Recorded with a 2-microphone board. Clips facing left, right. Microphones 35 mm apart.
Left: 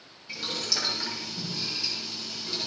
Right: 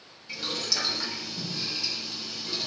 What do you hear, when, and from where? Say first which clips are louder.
0.3 s boiling: even; centre (ahead or behind), 7 m